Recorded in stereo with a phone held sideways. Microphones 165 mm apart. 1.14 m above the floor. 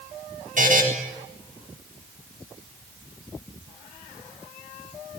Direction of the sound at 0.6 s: 50° right (ahead or behind).